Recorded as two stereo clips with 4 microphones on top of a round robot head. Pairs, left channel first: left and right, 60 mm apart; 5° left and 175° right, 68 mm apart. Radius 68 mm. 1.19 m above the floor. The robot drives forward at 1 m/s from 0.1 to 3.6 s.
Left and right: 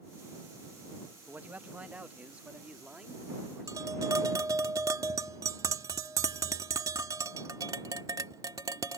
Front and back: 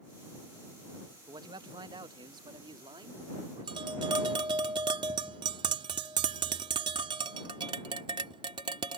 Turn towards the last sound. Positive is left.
turn(degrees=-145)